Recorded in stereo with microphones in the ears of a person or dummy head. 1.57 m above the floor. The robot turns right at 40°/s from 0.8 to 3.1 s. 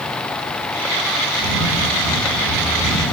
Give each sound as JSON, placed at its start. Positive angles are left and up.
{"t": 1.4, "sound": "a camera shutter", "azimuth_deg": 120, "distance_m": 3.0}